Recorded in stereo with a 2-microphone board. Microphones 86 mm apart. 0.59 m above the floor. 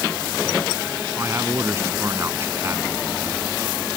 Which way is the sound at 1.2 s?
30° right (ahead or behind).